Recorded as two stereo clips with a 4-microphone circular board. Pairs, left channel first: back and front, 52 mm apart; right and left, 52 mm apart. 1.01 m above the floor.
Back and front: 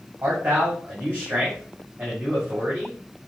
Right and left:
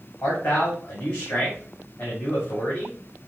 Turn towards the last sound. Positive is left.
turn(degrees=-50)